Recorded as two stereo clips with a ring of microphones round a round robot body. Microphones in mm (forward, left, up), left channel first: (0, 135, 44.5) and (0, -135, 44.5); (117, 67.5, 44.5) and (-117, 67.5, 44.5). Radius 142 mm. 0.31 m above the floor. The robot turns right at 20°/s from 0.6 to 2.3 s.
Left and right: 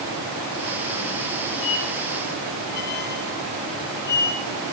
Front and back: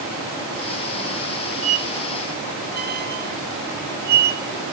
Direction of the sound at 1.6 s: 125° left.